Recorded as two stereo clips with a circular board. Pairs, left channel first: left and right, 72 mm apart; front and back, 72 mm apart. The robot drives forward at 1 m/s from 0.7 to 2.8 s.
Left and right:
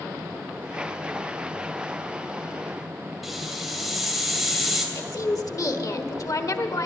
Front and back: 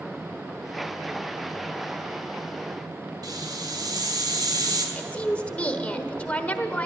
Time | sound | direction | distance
3.2 | a hiss | straight behind | 2.5 m
5.0 | a woman speaking | 70° left | 1.3 m